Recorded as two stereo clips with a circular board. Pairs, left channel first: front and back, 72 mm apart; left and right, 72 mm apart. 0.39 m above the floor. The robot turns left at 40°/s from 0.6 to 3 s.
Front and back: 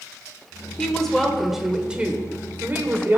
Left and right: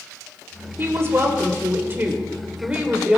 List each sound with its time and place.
0.8 s a woman speaking: 70° right, 1.1 m; by 3.2 s 155° right, 1.1 m